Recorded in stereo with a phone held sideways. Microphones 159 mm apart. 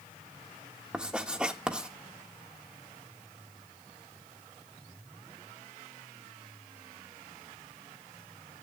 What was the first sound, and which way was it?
Writing, 5° right (ahead or behind).